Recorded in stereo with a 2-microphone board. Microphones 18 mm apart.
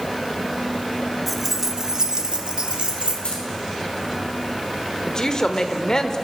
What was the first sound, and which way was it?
Keys jangling, 5° right (ahead or behind).